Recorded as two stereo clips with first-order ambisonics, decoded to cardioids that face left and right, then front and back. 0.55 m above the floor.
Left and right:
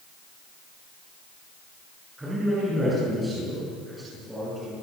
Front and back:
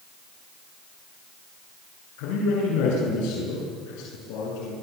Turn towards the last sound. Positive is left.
turn(degrees=-5)